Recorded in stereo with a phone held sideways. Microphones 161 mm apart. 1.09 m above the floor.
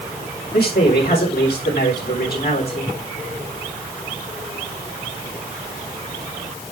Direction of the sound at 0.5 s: 80° left.